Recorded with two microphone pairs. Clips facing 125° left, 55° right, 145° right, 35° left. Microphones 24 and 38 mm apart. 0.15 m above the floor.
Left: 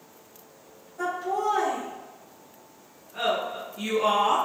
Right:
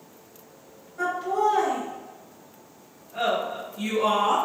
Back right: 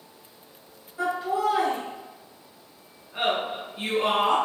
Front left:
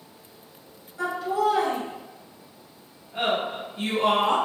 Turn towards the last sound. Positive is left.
turn(degrees=160)